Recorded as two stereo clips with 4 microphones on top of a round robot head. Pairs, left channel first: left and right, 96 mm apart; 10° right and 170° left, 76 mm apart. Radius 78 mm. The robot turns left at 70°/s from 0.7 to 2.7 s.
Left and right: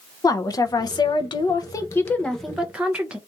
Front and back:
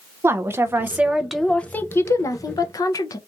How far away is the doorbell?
I don't hear a doorbell.